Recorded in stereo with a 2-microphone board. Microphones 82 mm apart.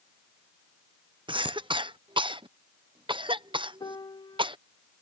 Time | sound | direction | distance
1.3 | a cough | 85° right | ?
3.8 | a piano | 60° left (ahead or behind) | ?